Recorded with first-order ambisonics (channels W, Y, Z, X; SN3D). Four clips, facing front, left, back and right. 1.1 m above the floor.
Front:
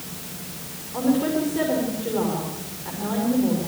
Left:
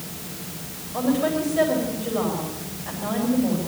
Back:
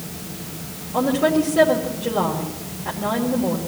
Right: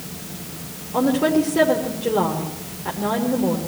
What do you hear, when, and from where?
0.9 s a woman speaking: 105° right, 3 m